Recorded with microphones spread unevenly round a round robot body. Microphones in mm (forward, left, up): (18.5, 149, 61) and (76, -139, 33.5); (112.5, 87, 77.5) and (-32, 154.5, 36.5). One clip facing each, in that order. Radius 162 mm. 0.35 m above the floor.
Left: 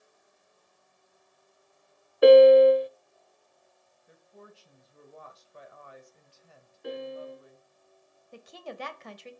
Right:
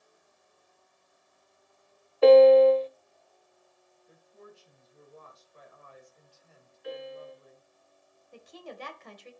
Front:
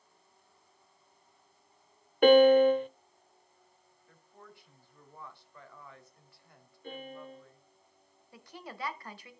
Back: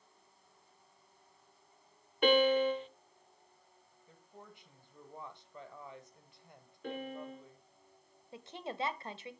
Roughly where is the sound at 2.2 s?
Ahead left.